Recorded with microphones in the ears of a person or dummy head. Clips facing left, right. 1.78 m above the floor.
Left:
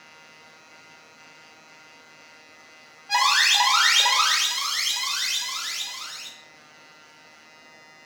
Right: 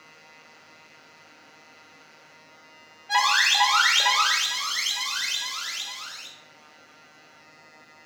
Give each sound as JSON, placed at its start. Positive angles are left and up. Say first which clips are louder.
{"t": 3.1, "sound": "an alarm", "louder": "even", "side_deg": 0, "distance_m": 1.0}